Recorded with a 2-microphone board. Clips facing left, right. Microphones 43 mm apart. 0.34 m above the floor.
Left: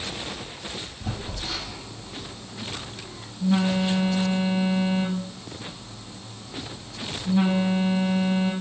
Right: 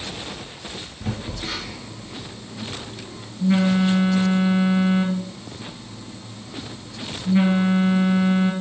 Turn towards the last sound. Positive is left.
turn(degrees=-60)  # may be behind; listen again after turning